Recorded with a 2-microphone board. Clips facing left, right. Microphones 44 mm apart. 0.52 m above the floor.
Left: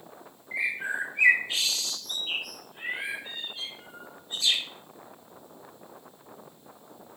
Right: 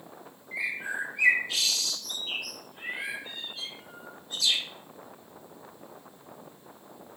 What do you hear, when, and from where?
0.5 s a bird: 25° left (ahead or behind), 0.6 m